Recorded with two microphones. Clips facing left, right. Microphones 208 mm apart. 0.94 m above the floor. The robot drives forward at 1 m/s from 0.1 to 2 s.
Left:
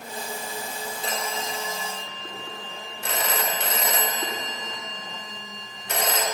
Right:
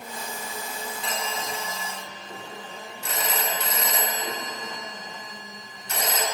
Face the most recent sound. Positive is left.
turn(degrees=75)  # may be behind; listen again after turning